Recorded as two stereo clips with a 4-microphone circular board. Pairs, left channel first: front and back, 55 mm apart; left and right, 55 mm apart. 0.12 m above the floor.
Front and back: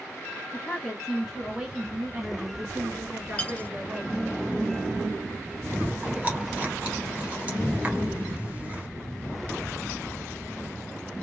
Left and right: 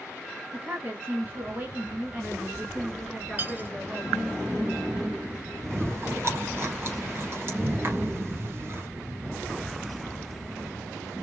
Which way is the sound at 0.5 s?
70° right.